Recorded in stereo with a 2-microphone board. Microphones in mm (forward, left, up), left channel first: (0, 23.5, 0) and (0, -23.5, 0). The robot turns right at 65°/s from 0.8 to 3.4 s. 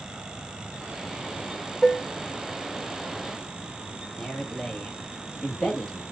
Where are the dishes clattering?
5° left (ahead or behind), 0.8 m; by 2.1 s 25° left (ahead or behind), 0.8 m.